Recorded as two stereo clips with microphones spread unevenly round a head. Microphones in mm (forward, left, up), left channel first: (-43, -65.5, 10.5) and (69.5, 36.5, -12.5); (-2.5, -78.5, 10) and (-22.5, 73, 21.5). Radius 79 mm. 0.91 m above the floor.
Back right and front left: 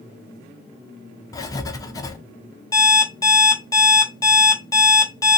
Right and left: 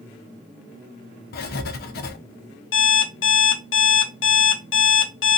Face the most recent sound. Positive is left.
turn(degrees=-70)